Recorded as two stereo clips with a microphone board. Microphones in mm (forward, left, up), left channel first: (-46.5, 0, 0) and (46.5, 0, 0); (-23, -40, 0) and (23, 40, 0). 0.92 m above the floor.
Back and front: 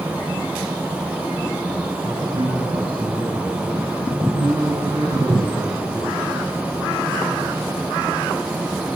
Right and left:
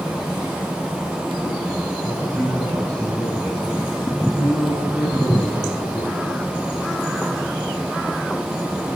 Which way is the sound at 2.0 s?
10° right.